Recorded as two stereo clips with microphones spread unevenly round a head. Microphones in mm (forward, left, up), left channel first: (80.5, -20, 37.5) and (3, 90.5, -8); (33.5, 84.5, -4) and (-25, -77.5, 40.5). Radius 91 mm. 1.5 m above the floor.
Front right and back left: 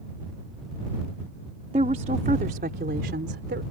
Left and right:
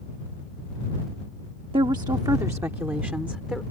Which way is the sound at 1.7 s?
175° right.